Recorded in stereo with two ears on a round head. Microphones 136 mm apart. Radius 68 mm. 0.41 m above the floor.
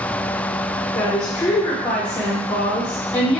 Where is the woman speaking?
30° left (ahead or behind), 1.4 m.